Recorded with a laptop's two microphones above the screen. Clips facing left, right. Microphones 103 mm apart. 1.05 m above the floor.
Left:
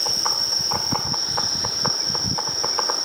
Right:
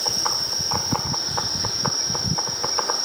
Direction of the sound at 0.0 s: 15° right (ahead or behind).